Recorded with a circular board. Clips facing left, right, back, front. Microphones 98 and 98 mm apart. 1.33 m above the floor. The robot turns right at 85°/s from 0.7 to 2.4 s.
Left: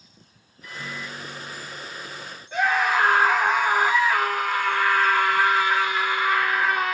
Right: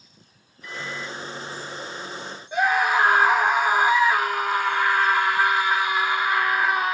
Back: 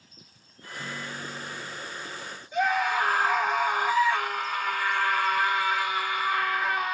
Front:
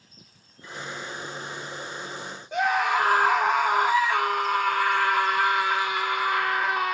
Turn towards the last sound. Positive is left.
turn(degrees=-15)